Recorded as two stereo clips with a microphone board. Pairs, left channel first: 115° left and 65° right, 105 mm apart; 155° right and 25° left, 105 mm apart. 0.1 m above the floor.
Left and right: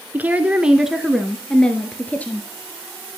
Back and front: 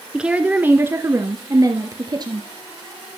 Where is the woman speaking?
45° right, 1.1 m; by 2.5 s 45° left, 1.6 m.